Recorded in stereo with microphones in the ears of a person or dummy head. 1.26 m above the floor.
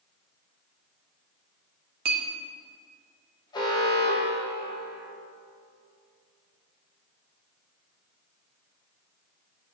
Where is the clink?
55° right (ahead or behind), 1.1 m.